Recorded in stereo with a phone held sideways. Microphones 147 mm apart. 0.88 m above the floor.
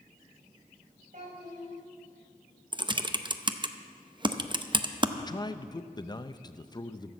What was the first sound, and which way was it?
A child speaking, 65° right (ahead or behind).